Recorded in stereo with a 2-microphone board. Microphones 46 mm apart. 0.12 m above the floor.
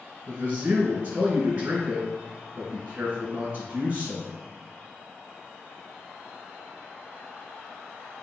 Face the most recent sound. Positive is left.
turn(degrees=-30)  # may be behind; listen again after turning